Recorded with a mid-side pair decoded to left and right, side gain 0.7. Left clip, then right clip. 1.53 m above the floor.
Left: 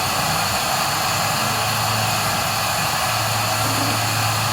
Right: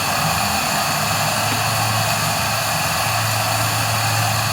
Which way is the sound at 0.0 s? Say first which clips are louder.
Right 1 dB; 50° right.